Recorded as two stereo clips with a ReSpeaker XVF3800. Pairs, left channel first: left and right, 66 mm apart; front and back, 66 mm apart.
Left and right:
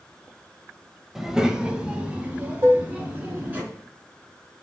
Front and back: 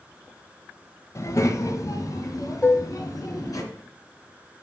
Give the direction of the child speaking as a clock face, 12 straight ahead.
12 o'clock.